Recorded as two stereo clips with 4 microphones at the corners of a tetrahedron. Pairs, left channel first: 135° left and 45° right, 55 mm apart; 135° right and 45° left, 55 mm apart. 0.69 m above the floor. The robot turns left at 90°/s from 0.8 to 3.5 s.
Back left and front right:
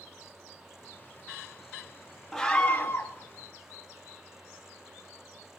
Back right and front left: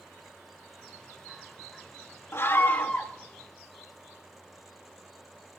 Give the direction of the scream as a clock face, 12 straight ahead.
5 o'clock.